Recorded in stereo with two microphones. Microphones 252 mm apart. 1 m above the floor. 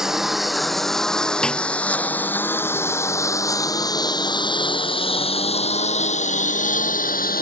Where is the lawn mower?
Centre (ahead or behind); by 7.4 s 35° left (ahead or behind).